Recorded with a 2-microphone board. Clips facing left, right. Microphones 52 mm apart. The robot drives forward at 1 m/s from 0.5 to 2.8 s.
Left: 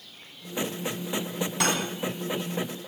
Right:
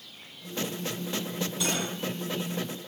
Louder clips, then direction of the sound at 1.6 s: Left 5 dB; 70° left (ahead or behind).